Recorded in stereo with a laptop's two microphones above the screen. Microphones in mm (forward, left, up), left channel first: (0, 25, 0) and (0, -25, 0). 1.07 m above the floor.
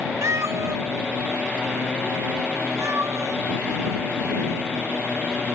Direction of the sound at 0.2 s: 70° right (ahead or behind).